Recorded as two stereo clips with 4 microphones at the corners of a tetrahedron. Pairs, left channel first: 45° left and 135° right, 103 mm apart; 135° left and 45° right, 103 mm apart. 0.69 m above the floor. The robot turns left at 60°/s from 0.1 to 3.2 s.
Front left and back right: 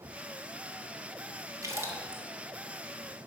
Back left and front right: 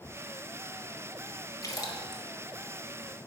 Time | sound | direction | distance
1.6 | a splash | straight behind | 1.4 m